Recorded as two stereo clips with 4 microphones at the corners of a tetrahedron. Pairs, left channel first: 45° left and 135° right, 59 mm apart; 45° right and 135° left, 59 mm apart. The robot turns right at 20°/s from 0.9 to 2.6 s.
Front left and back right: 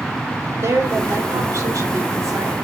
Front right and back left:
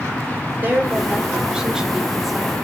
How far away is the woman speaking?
About 2.5 m.